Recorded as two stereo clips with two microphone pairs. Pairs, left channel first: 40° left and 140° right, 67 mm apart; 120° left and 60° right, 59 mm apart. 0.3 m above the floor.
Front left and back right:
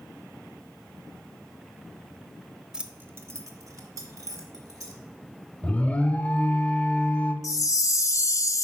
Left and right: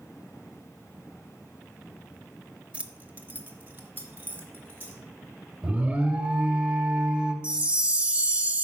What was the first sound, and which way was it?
Keys jangling, 85° right.